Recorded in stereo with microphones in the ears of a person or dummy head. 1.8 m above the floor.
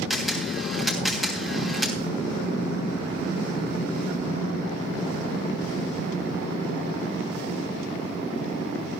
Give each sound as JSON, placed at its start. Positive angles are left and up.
{"t": 0.1, "sound": "a camera shutter", "side_deg": 0, "distance_m": 3.0}